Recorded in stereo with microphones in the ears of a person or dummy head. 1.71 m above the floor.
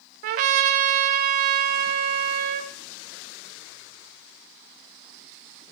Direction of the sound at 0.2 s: 45° right (ahead or behind).